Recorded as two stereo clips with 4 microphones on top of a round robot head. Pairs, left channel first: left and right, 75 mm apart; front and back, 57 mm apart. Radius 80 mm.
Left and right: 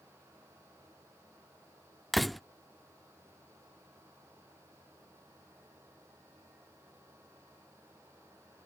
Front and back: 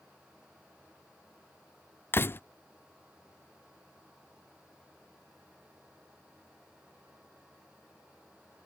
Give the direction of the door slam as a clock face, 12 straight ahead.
12 o'clock.